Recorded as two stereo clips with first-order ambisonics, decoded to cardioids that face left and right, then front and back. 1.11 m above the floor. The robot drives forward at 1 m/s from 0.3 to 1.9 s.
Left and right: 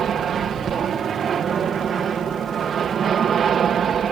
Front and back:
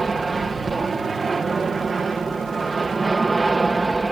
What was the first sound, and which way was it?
An aircraft, 120° right.